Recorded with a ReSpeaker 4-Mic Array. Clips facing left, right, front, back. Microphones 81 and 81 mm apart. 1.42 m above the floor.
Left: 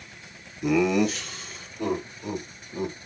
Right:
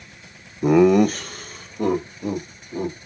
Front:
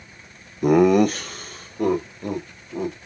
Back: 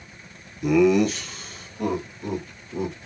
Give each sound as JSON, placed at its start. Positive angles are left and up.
{"t": 0.6, "sound": "laughter", "azimuth_deg": -40, "distance_m": 0.5}